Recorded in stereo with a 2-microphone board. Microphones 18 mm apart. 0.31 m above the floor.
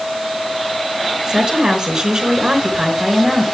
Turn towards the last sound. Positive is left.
turn(degrees=-45)  # may be behind; listen again after turning